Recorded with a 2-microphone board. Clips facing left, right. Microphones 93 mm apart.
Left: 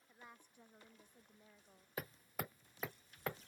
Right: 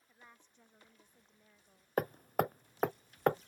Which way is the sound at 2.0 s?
50° right (ahead or behind).